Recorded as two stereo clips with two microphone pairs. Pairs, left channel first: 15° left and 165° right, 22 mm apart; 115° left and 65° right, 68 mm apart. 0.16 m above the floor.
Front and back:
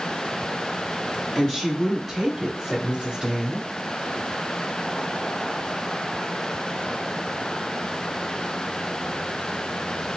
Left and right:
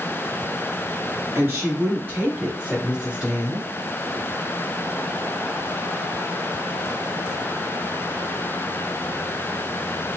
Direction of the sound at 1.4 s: 40° right.